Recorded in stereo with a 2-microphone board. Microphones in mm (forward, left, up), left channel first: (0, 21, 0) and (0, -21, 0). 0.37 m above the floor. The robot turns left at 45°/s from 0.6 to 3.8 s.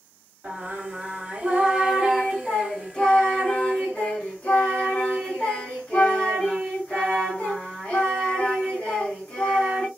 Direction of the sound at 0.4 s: 110° right.